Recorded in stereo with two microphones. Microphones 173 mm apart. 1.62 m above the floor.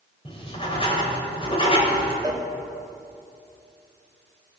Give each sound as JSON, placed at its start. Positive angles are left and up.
{"t": 0.2, "sound": "writing", "side_deg": 30, "distance_m": 2.5}
{"t": 2.2, "sound": "a cowbell", "side_deg": -20, "distance_m": 1.2}